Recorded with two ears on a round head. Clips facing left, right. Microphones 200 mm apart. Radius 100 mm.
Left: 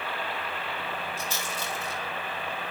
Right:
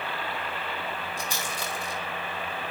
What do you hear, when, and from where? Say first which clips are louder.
1.2 s a rattle: right 1 dB; 15° right (ahead or behind), 5.5 m